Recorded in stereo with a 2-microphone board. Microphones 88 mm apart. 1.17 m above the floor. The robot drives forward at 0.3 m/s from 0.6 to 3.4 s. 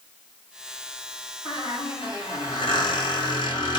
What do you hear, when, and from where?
1.4 s a squeak: 75° left (ahead or behind), 4 m; by 3.8 s 65° left (ahead or behind), 4 m